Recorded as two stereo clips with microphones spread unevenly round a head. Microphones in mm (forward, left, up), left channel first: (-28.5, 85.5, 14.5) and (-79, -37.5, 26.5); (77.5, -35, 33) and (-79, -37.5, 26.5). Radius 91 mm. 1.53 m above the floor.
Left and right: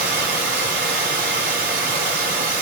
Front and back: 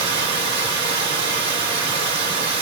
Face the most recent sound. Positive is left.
turn(degrees=-125)